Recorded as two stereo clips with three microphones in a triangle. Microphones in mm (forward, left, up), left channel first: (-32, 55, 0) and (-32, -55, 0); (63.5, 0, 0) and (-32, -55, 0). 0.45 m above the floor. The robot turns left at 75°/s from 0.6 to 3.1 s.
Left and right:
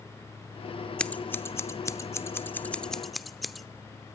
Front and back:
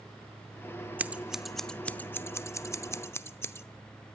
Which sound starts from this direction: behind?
Scissors, at 1.0 s.